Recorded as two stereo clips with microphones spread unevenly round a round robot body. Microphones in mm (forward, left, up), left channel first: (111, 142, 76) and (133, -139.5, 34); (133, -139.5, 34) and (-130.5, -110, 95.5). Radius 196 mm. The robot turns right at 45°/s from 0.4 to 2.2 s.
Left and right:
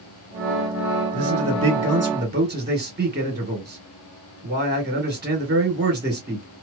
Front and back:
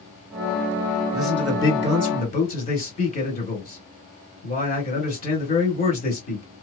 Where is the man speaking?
100° right, 2 m; by 6.5 s 55° right, 2 m.